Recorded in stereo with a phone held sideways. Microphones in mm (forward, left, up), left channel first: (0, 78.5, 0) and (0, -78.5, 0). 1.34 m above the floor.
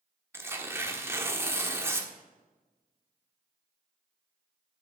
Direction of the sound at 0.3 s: 15° right (ahead or behind).